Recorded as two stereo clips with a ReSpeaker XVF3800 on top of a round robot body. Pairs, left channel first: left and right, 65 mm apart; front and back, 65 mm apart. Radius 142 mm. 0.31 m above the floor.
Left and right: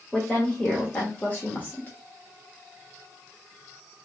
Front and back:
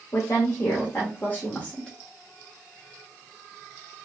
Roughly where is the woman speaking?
Ahead left.